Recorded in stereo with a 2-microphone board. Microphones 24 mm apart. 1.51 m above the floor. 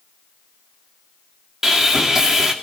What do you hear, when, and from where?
1.6 s sawing: 20° right (ahead or behind), 2.5 m